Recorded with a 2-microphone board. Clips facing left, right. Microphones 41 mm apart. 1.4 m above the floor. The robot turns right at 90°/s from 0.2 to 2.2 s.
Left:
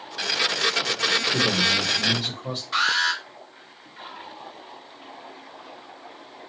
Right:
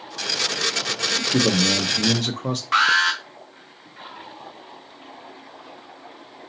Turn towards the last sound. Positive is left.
turn(degrees=-85)